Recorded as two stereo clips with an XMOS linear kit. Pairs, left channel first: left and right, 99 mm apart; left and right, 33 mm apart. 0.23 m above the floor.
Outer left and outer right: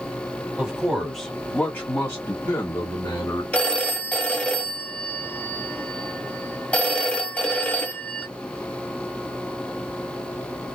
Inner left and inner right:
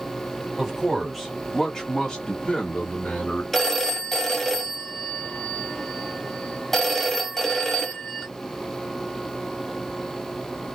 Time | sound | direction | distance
0.6 | a man speaking | 10° right (ahead or behind) | 1.5 m
3.5 | a phone ringing | 10° left (ahead or behind) | 0.8 m